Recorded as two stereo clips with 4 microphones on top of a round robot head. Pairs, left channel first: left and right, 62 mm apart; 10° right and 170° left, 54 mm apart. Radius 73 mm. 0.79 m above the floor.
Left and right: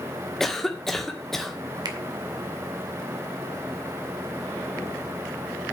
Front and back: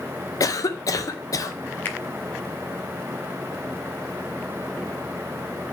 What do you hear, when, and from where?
0.4 s a cough: 5° left, 2 m
1.9 s a finger snap: 70° right, 2.5 m